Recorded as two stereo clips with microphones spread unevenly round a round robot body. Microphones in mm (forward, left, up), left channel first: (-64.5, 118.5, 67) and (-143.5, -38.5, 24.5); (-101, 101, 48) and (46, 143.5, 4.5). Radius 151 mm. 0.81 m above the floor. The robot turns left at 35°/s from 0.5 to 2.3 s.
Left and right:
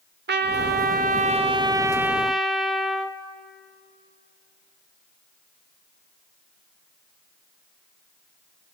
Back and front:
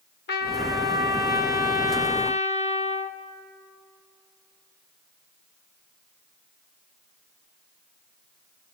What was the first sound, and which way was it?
A trumpet, 145° right.